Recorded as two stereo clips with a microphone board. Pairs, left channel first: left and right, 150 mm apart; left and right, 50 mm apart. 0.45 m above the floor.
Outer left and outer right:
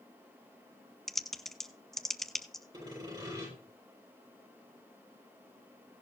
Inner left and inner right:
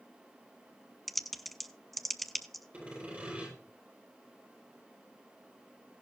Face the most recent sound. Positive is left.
turn(degrees=-25)  # may be behind; listen again after turning